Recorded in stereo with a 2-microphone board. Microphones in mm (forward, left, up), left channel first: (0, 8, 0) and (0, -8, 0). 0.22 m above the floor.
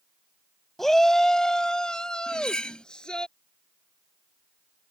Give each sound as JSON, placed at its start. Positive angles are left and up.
{"t": 0.8, "sound": "a shout", "side_deg": 20}
{"t": 2.3, "sound": "cutlery clinking", "side_deg": 65}